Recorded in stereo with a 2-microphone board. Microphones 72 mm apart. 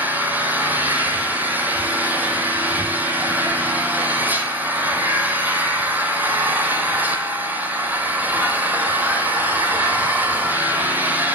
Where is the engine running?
25° right (ahead or behind), 1.6 m.